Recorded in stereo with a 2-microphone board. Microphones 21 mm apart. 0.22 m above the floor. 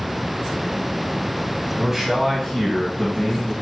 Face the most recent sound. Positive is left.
turn(degrees=35)  # may be behind; listen again after turning